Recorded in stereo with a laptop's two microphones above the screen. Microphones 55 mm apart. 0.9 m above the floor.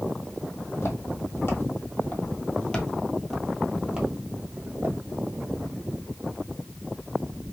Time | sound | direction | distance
0.6 | footsteps | 60° left (ahead or behind) | 2.0 m